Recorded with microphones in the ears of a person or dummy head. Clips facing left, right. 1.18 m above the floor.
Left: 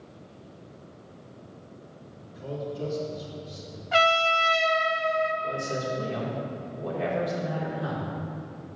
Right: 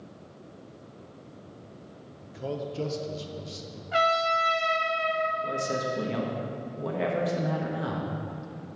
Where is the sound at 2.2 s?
65° right (ahead or behind), 0.9 m.